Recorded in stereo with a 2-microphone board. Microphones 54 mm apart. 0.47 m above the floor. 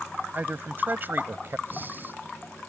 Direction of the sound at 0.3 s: 35° right (ahead or behind).